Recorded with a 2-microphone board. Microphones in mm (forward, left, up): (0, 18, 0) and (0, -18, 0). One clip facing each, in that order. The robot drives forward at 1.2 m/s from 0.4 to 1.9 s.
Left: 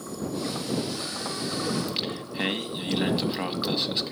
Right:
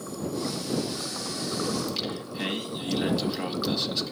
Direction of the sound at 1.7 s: 30° left (ahead or behind).